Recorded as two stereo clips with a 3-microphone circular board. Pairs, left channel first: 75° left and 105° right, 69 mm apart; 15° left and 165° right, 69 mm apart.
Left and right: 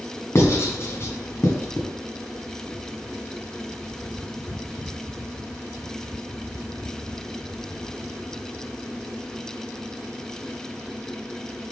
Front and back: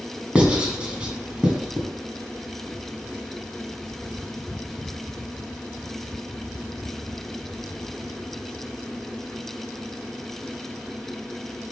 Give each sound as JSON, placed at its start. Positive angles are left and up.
{"t": 0.3, "sound": "writing", "azimuth_deg": 120, "distance_m": 1.8}